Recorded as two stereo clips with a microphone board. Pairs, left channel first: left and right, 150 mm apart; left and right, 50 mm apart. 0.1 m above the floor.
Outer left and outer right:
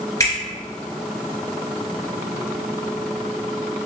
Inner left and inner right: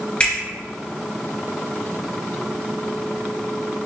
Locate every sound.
0.2 s a finger snap: 25° left (ahead or behind), 1.8 m